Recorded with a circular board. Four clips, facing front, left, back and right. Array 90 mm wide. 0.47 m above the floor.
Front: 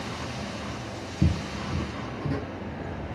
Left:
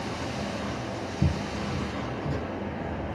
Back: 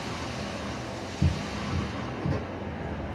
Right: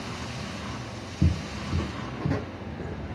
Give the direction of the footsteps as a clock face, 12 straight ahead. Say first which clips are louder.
Right 1 dB, front 3 dB; 1 o'clock.